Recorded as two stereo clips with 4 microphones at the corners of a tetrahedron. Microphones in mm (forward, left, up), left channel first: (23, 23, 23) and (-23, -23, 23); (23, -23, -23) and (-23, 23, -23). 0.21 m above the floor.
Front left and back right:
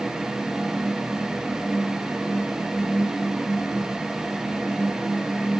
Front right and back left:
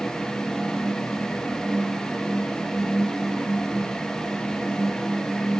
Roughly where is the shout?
No shout in this recording.